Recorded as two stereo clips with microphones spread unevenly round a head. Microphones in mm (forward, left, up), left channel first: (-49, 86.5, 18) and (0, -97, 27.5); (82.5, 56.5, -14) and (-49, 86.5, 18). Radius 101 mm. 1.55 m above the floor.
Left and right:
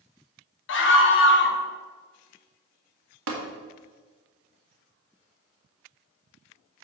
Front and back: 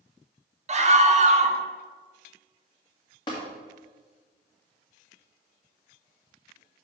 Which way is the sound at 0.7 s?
130° left.